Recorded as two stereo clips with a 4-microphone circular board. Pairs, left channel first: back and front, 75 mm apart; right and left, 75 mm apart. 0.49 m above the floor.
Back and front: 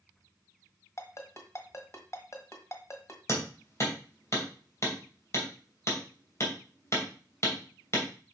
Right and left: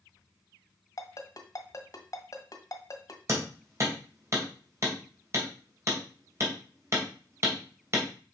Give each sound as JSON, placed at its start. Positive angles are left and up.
{"t": 1.0, "sound": "a ringtone", "azimuth_deg": -130, "distance_m": 1.5}
{"t": 3.3, "sound": "hammering", "azimuth_deg": 135, "distance_m": 2.5}